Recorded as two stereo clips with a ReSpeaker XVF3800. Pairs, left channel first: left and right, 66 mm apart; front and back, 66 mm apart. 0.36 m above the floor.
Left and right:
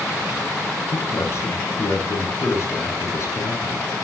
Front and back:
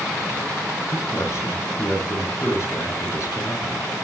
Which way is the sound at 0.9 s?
45° left.